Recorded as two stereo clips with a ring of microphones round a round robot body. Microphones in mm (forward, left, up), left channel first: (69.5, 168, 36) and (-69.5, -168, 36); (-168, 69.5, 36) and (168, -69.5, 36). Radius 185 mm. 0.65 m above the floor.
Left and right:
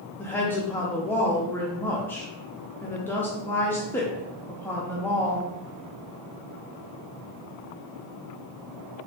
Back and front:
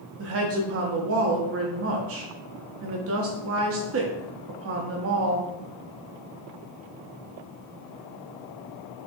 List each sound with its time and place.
0.2 s a woman speaking: 15° right, 0.5 m